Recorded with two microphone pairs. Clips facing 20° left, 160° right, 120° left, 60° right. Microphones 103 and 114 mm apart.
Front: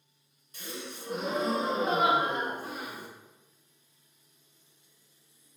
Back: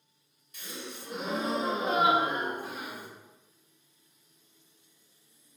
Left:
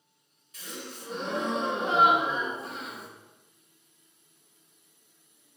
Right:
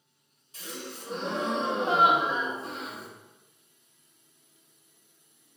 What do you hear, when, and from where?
0.5 s a gasp: 15° right, 0.9 m